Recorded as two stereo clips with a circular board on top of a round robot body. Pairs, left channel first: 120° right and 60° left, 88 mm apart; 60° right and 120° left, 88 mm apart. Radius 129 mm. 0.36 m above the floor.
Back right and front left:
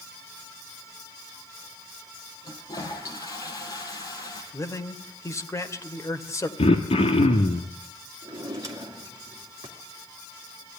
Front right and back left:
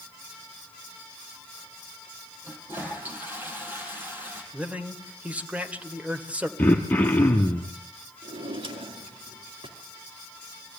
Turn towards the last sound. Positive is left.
turn(degrees=115)